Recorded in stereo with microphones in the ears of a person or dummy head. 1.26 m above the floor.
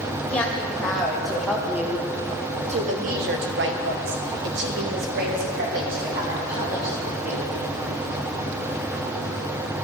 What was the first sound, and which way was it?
A woman speaking, 5° left (ahead or behind).